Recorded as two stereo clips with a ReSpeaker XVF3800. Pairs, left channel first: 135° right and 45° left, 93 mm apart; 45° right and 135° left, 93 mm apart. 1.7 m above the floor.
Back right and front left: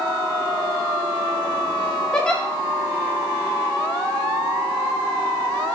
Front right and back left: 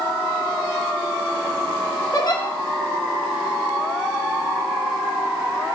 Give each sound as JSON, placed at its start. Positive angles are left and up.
{"t": 2.1, "sound": "a giggle", "azimuth_deg": -55, "distance_m": 1.2}